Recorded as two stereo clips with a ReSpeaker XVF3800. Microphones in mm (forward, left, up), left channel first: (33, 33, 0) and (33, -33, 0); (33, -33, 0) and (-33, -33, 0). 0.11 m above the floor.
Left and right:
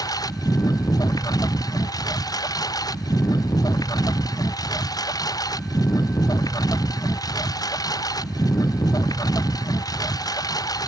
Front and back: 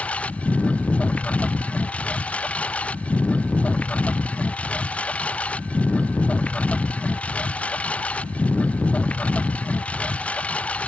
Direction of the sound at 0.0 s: 70° left.